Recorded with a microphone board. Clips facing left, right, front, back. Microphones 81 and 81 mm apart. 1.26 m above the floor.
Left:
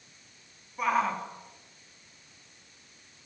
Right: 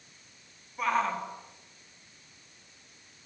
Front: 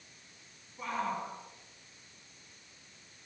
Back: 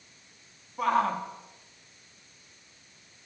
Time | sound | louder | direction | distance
0.8 | a shout | left 1 dB, back 10 dB | 175° left | 3.5 m